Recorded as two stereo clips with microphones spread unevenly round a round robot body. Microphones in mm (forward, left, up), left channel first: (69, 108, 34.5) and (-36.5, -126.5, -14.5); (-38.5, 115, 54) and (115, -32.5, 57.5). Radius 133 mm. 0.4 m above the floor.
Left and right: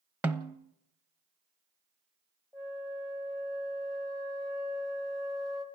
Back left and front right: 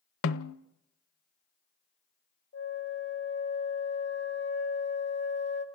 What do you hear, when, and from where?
0.2 s a snare drum: 165° left, 0.7 m
2.5 s a flute: 160° left, 2.5 m